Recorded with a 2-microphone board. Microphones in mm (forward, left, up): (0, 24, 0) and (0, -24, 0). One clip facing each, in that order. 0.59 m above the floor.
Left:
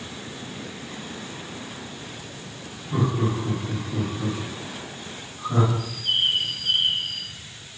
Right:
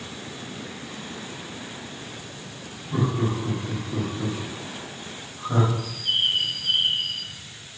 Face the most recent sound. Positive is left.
turn(degrees=5)  # may be behind; listen again after turning